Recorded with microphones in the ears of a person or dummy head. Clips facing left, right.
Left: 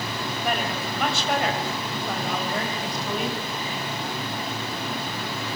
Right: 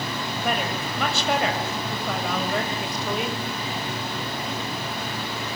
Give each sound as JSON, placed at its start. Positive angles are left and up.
{"t": 0.4, "sound": "a woman speaking", "side_deg": -65, "distance_m": 7.0}